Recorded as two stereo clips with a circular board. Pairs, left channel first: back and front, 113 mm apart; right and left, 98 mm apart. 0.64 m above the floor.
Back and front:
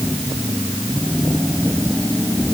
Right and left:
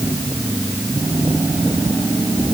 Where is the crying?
No crying in this recording.